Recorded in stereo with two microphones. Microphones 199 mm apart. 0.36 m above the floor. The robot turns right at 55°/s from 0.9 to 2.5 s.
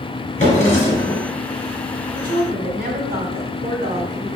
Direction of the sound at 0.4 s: 40° left (ahead or behind).